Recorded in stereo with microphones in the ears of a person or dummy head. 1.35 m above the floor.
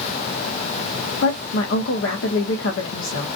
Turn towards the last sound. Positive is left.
turn(degrees=65)  # may be behind; listen again after turning